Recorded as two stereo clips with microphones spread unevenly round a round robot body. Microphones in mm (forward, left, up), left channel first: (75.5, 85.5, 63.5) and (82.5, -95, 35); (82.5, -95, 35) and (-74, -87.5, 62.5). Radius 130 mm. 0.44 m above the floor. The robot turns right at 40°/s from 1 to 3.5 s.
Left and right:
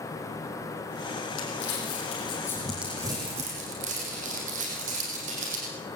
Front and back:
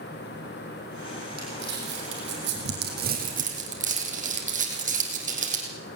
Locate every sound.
1.4 s crumpling: 130° left, 5 m; by 5.7 s 145° right, 5 m